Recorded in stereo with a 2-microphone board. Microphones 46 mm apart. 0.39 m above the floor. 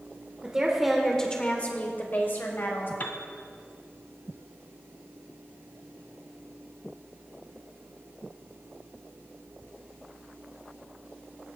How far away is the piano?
About 0.6 m.